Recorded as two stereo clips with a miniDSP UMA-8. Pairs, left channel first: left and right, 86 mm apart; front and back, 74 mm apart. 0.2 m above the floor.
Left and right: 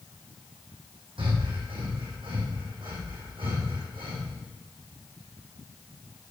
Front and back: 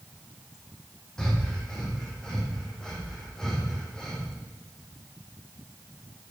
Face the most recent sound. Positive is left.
turn(degrees=-80)